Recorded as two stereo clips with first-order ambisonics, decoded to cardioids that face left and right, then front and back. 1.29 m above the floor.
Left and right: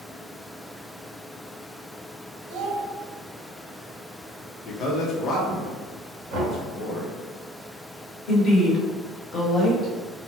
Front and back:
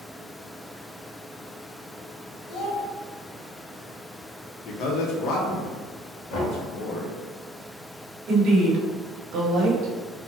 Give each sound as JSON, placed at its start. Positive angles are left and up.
{"t": 2.5, "sound": "a child speaking", "azimuth_deg": -60, "distance_m": 1.2}
{"t": 4.7, "sound": "a man speaking", "azimuth_deg": 35, "distance_m": 0.7}
{"t": 6.3, "sound": "knocking", "azimuth_deg": -35, "distance_m": 1.6}
{"t": 8.3, "sound": "a woman speaking", "azimuth_deg": 145, "distance_m": 1.0}